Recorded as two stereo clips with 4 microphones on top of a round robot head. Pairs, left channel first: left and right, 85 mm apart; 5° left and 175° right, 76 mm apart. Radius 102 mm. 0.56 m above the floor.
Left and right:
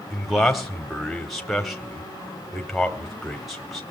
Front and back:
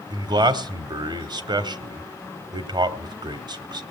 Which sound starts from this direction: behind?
A man speaking, at 0.1 s.